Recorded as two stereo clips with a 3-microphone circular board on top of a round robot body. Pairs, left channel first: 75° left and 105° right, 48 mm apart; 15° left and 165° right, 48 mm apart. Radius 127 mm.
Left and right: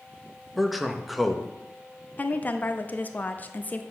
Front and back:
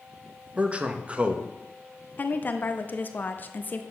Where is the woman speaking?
40° left, 1.0 m.